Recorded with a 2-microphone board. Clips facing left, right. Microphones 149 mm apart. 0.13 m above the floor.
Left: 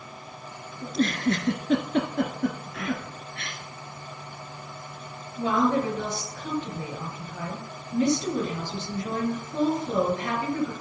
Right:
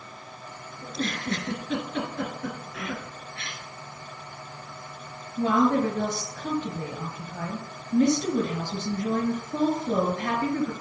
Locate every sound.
0.8 s a giggle: 50° left (ahead or behind), 1.3 m
2.7 s whispering: 5° right (ahead or behind), 1.2 m
5.4 s a woman speaking: 50° right (ahead or behind), 2.5 m